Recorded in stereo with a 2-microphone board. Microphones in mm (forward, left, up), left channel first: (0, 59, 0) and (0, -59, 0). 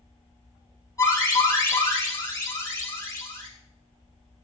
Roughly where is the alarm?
Left.